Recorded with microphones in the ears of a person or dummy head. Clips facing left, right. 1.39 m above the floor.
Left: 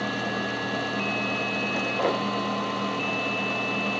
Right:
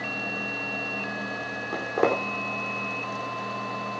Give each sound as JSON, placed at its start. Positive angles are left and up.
{"t": 1.7, "sound": "footsteps", "side_deg": -80, "distance_m": 6.5}